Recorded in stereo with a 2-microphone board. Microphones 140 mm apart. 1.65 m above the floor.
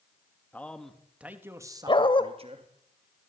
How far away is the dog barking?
About 1.8 m.